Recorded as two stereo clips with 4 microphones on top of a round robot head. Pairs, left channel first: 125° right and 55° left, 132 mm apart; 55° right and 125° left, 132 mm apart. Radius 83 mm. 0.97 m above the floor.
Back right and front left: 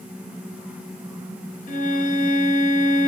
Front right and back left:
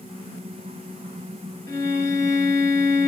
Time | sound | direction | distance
1.7 | a violin | 125° right | 1.3 m